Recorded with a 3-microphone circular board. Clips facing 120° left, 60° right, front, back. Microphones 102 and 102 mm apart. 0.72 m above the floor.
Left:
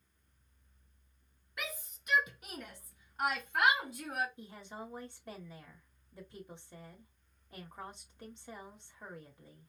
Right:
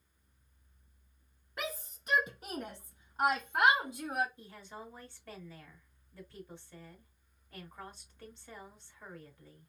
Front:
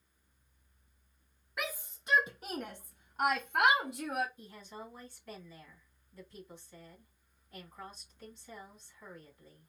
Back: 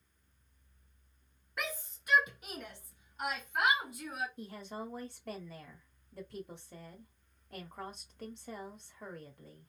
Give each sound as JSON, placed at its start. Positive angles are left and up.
{"t": 1.6, "sound": "a shout", "azimuth_deg": -85, "distance_m": 0.7}
{"t": 4.4, "sound": "a woman speaking", "azimuth_deg": -170, "distance_m": 2.0}